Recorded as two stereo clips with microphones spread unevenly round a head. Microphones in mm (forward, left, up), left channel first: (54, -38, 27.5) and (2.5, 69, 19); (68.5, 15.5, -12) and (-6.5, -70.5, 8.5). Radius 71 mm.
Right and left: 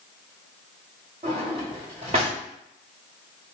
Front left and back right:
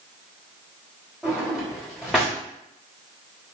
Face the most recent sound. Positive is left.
turn(degrees=155)